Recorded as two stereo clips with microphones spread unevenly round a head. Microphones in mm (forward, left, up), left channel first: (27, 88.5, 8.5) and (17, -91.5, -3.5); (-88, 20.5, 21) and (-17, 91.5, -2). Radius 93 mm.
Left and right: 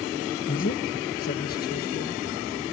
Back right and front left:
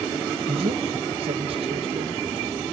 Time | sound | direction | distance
0.5 | a man speaking | 45° left | ?